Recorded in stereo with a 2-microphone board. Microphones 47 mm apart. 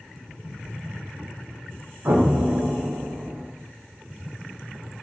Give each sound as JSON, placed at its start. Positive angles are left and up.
{"t": 2.0, "sound": "an explosion", "side_deg": -70, "distance_m": 0.5}